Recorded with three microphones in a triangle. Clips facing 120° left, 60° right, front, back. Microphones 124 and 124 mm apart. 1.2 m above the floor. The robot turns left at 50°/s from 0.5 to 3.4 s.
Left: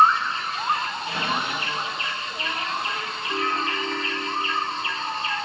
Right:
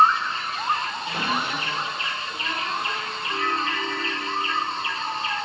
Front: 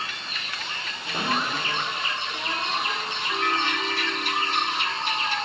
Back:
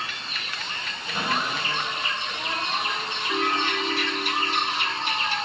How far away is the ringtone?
About 2.0 m.